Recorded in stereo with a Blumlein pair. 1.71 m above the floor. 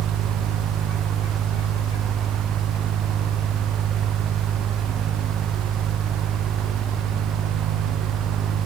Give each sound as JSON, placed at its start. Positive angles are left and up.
{"t": 0.0, "sound": "a fan", "azimuth_deg": -30, "distance_m": 0.9}